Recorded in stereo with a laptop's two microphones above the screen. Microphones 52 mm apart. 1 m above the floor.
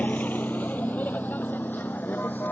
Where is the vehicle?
30° left (ahead or behind); by 2.5 s 35° left (ahead or behind).